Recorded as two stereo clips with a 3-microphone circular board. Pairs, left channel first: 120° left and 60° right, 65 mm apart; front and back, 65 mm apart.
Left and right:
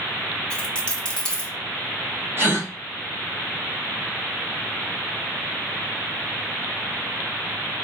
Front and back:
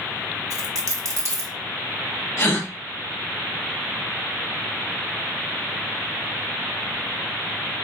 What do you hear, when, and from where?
0.5 s a dropped coin: 170° right, 0.8 m
2.4 s a gasp: 20° right, 1.4 m